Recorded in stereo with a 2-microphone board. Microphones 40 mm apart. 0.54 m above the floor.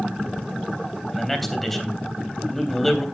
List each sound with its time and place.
1.1 s a man speaking: 5° left (ahead or behind), 3 m